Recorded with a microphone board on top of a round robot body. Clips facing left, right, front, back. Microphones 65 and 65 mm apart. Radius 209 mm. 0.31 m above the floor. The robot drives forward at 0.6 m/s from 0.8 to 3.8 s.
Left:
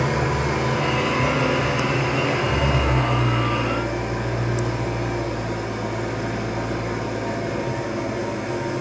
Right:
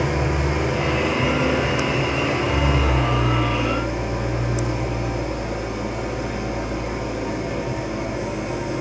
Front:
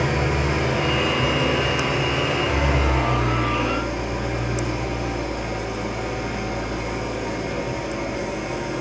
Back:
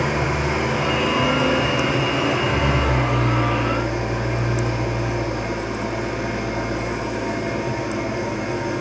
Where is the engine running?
115° left, 3 m; by 8.8 s 140° left, 4 m.